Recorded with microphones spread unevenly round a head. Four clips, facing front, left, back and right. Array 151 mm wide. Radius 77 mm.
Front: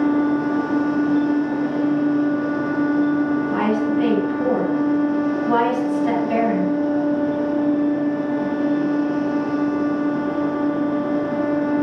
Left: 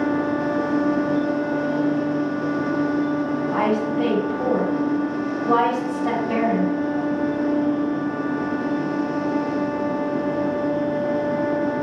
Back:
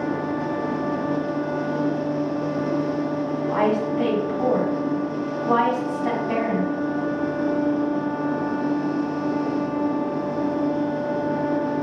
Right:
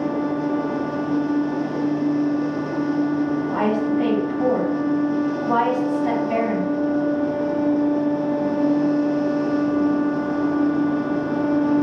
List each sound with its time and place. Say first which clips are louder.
3.5 s a woman speaking: right 1 dB, front 2 dB; 145° left, 4.5 m